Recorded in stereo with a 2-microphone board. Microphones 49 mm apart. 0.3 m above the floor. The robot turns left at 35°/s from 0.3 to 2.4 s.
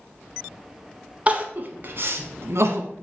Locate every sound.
1.3 s crying: 30° right (ahead or behind), 1.1 m; by 2.9 s 65° right (ahead or behind), 1.1 m